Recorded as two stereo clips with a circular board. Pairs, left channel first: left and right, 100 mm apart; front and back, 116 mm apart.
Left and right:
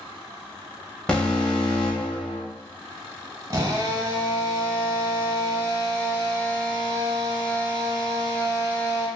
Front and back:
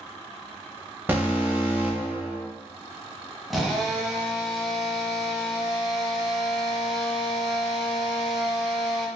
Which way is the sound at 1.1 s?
150° left.